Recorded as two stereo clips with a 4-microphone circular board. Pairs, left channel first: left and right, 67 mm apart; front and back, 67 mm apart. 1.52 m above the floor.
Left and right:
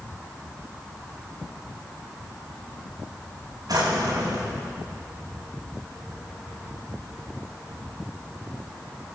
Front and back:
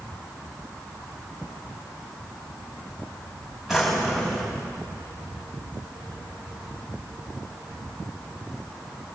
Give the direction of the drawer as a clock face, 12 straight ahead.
3 o'clock.